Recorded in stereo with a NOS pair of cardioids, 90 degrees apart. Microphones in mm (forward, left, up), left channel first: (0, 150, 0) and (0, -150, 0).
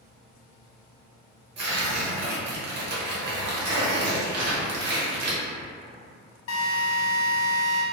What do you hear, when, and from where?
1.6 s tearing paper: 55° right, 1.0 m
4.3 s crumpling: 55° right, 0.8 m
6.5 s a drill: 50° left, 0.9 m